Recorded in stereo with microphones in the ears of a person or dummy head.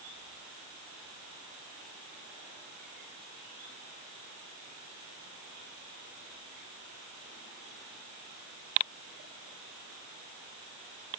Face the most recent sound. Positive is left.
No sound to turn to.